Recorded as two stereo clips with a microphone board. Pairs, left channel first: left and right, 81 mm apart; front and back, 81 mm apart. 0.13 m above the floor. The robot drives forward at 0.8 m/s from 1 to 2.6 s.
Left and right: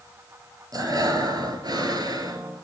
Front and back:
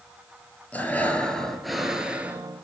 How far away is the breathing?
About 1.7 m.